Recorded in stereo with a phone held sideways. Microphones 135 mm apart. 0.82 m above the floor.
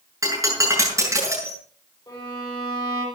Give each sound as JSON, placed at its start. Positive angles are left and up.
{"t": 0.2, "sound": "breaking glass", "side_deg": -20, "distance_m": 7.5}
{"t": 2.1, "sound": "a violin", "side_deg": 30, "distance_m": 5.0}